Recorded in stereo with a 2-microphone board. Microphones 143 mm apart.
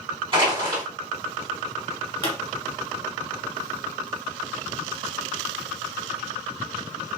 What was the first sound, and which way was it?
Crushing, 35° right (ahead or behind).